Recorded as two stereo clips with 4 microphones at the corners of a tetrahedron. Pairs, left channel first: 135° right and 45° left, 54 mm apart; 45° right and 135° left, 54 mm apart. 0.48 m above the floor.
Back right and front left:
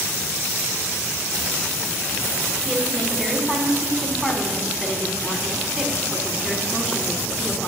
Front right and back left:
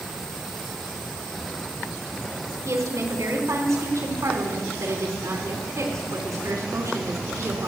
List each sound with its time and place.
2.6 s a woman speaking: 125° left, 4 m